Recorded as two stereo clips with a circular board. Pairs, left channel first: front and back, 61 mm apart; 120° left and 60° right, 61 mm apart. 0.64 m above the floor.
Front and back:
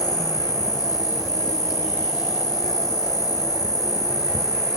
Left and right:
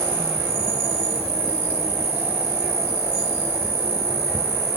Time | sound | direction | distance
0.0 | an insect | 5° left | 3 m